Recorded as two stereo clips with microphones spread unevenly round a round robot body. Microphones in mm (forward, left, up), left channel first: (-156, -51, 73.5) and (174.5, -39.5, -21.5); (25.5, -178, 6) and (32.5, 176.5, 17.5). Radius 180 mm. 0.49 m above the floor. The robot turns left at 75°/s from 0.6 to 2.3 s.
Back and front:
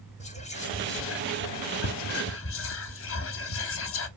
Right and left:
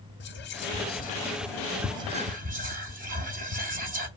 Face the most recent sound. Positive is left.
turn(degrees=135)